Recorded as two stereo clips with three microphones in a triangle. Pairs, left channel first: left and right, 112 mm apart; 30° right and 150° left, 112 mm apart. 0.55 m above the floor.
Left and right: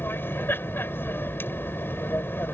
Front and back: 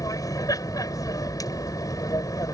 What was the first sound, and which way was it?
An aircraft, 20° left.